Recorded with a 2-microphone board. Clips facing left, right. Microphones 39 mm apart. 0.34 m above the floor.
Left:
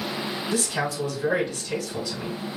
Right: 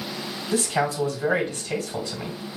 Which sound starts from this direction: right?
A man speaking, at 0.5 s.